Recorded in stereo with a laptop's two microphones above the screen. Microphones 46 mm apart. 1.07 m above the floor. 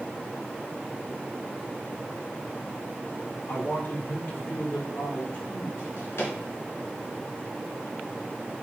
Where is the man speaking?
65° left (ahead or behind), 2 m; by 5.7 s 55° left (ahead or behind), 3.5 m.